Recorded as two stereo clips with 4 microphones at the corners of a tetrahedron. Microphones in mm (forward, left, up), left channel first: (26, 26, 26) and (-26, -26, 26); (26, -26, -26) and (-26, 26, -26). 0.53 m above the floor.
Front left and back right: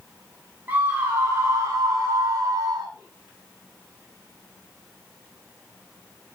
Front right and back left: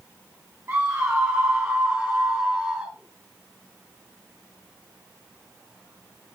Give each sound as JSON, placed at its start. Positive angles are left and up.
{"t": 0.7, "sound": "a scream", "azimuth_deg": 170, "distance_m": 1.6}